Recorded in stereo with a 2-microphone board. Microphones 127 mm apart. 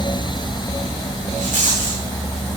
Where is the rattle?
80° right, 8.5 m.